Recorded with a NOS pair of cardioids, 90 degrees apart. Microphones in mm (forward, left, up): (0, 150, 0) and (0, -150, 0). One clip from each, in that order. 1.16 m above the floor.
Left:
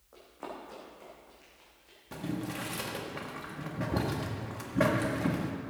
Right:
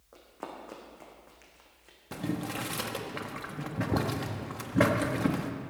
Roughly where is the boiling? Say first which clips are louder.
Right 2 dB; ahead right.